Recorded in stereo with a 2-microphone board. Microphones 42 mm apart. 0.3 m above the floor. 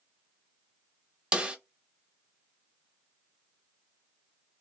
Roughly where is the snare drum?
Right.